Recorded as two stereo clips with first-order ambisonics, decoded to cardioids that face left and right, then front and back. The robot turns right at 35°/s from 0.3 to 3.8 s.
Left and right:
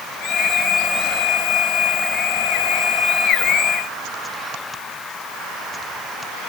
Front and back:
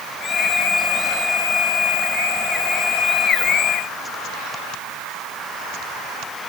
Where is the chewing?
No chewing in this recording.